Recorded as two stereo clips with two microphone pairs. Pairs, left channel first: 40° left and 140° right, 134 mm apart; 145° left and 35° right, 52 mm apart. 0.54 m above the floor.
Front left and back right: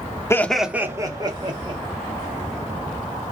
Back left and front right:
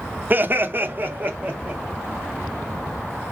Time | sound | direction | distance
0.3 | laughter | 15° right | 0.9 m